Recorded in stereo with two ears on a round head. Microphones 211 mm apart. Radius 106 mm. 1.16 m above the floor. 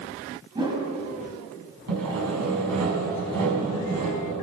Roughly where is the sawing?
Right.